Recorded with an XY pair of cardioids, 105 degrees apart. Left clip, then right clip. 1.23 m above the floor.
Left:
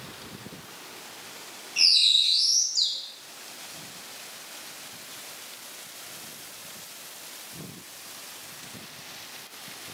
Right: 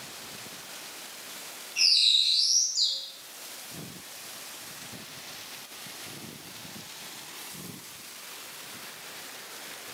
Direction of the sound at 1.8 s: 35° left.